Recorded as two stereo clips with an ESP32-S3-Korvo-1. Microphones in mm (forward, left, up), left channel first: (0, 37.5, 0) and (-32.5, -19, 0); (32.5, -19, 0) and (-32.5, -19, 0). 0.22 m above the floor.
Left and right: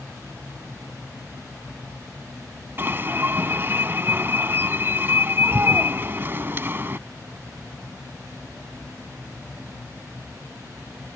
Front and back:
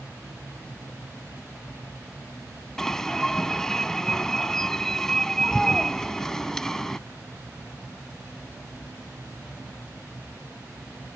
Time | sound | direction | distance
2.8 | an alarm | 80° right | ?